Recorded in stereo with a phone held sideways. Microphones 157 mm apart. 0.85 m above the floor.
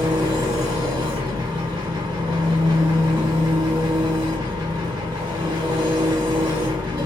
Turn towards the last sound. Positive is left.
turn(degrees=-25)  # may be behind; listen again after turning